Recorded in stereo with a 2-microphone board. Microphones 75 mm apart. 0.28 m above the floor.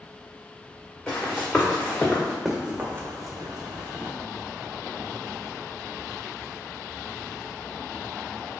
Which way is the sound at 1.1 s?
20° left (ahead or behind).